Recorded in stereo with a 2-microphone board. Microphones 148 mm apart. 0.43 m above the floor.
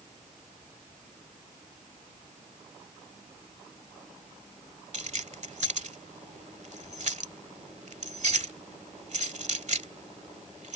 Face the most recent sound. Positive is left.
turn(degrees=-55)  # may be behind; listen again after turning